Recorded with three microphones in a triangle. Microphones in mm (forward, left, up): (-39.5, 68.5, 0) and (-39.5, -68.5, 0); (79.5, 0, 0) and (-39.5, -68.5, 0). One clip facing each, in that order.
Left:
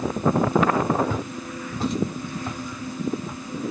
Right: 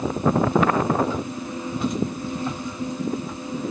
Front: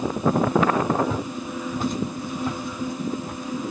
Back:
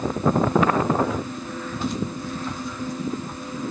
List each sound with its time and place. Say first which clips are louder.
1.1 s footsteps: right 2 dB, front 1 dB; 85° left, 1.1 m; by 3.4 s 5° right, 1.6 m